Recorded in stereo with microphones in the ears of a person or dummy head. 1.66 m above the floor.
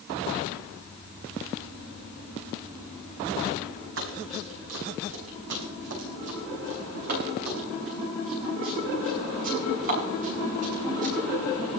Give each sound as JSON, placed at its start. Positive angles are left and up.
{"t": 4.0, "sound": "running footsteps", "side_deg": -75, "distance_m": 6.0}